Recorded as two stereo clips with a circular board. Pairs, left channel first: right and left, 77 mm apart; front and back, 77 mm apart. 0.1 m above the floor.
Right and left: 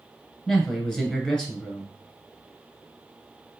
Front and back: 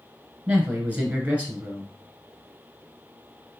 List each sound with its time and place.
0.5 s a man speaking: 155° right, 1.1 m